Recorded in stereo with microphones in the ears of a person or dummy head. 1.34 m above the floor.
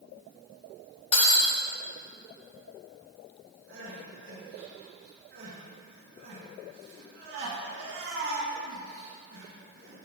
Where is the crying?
70° right (ahead or behind), 1.5 m.